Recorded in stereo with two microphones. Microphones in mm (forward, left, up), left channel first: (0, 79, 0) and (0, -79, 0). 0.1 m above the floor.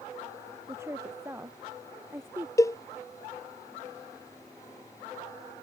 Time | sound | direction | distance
0.7 | a woman speaking | 15° right (ahead or behind) | ?
2.6 | a cowbell | 20° left (ahead or behind) | ?